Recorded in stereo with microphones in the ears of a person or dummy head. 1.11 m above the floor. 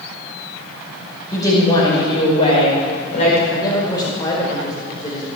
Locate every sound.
1.3 s a woman speaking: 20° left (ahead or behind), 5 m; by 3.4 s 45° left (ahead or behind), 4.5 m
3.5 s a man speaking: 25° left (ahead or behind), 4 m